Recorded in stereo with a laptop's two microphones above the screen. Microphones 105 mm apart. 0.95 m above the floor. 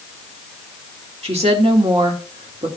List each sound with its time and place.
1.2 s a woman speaking: 75° right (ahead or behind), 1.9 m